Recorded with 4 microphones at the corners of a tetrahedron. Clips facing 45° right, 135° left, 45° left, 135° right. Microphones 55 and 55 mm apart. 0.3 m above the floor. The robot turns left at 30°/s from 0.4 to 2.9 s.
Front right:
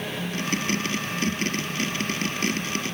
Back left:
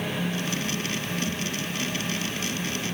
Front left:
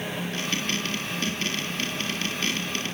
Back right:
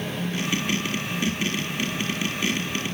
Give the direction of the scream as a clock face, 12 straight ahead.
I don't hear a scream.